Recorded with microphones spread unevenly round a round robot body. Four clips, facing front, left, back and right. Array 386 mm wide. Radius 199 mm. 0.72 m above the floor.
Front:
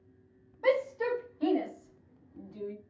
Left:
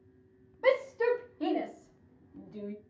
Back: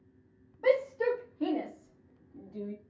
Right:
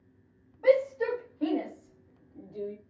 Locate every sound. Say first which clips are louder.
0.6 s a shout: right 3 dB, back 1 dB; 125° left, 4.5 m; by 2.8 s 110° left, 3.5 m